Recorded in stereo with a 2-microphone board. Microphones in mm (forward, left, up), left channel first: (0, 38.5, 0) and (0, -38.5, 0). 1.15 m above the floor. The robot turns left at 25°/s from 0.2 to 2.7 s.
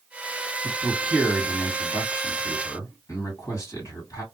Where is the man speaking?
170° right, 1.5 m; by 4.2 s 140° left, 1.5 m.